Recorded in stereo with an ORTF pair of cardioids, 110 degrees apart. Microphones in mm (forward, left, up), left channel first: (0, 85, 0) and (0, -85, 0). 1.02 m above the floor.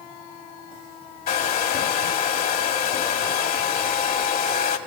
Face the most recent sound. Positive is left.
turn(degrees=60)